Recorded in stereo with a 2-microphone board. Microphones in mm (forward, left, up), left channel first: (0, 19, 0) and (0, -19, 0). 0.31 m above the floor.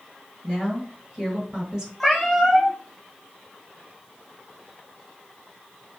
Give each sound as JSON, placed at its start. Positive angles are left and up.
{"t": 0.4, "sound": "a woman speaking", "side_deg": -25, "distance_m": 1.2}
{"t": 2.0, "sound": "a cat meowing", "side_deg": 0, "distance_m": 0.7}